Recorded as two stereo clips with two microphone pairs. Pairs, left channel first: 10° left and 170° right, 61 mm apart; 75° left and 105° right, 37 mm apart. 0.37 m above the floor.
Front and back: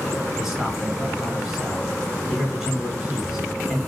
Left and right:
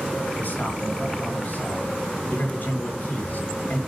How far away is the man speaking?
About 4.5 m.